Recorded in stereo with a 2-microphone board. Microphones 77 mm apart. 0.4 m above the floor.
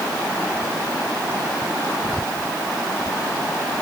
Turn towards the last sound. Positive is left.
No sound to turn to.